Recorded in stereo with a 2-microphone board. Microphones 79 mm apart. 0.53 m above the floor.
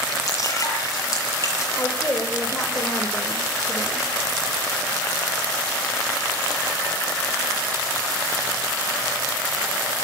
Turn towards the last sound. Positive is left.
turn(degrees=30)  # may be behind; listen again after turning